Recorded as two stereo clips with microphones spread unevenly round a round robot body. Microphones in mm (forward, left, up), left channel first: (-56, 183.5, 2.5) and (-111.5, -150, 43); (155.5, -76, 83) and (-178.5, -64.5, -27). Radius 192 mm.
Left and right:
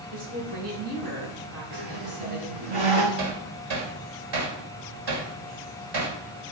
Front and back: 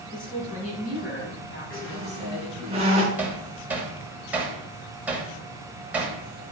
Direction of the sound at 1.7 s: 105° right.